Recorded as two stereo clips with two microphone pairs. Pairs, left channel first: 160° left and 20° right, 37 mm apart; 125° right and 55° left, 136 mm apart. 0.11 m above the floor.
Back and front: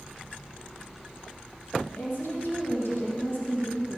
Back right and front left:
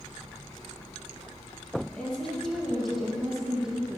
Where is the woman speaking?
150° left, 4 m; by 4.0 s 140° left, 4.5 m.